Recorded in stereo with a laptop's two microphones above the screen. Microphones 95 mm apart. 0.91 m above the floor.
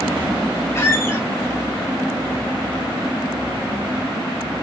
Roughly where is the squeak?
Left.